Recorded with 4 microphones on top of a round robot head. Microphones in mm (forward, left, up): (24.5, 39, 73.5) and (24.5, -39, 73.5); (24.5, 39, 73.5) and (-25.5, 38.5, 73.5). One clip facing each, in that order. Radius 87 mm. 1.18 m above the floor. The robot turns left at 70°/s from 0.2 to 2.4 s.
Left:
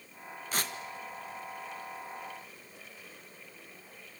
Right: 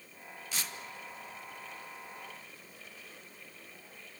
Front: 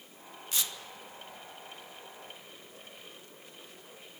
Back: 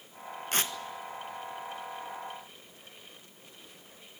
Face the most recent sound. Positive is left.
turn(degrees=5)